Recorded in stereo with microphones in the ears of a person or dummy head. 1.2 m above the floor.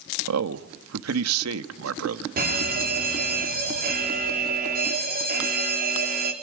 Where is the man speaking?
85° right, 1.4 m.